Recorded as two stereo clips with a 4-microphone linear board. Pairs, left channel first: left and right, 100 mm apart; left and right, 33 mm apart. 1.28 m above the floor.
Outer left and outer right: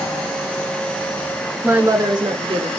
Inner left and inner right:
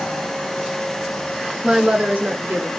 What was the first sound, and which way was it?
A woman speaking, 15° right (ahead or behind).